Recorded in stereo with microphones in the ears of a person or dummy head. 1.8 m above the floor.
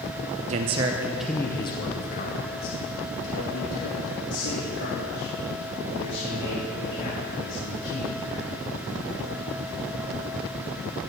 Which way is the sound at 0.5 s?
40° right (ahead or behind).